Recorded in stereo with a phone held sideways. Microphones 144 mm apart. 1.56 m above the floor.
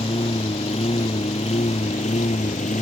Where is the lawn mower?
40° left (ahead or behind); by 2.8 s 55° left (ahead or behind).